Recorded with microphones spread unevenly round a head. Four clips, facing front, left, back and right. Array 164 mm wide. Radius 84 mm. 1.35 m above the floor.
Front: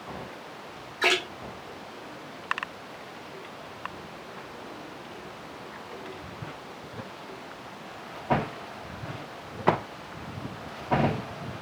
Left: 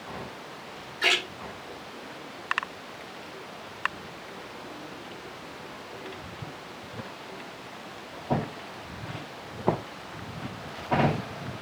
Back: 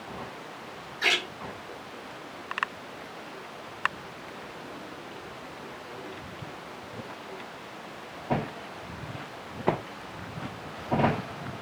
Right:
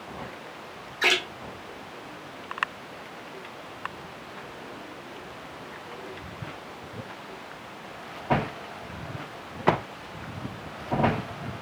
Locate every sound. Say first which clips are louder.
1.0 s a splash: right 2 dB, front 4 dB; 30° right, 1.5 m